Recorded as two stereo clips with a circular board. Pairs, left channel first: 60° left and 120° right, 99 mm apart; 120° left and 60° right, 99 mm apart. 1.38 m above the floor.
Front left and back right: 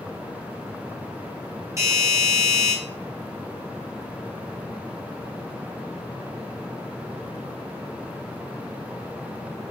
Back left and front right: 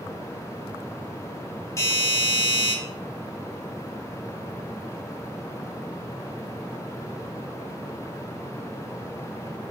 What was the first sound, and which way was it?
A doorbell, straight behind.